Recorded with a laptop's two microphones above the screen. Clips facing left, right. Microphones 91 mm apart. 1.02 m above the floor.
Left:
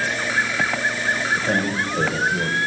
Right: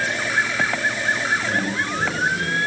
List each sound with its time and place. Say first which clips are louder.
1.4 s a man speaking: left 1 dB; 75° left (ahead or behind), 5.5 m